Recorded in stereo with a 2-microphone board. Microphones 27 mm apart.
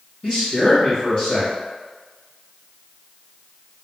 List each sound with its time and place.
0.2 s a man speaking: 40° left (ahead or behind), 2.0 m